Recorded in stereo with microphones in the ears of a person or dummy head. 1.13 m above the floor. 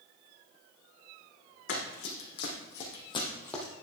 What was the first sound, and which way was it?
Running footsteps, 60° left (ahead or behind).